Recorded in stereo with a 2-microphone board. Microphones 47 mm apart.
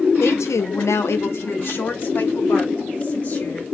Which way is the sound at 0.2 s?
60° left (ahead or behind).